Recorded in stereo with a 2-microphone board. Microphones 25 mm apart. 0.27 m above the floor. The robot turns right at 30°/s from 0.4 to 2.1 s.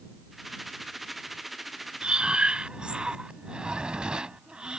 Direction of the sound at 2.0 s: 50° right (ahead or behind).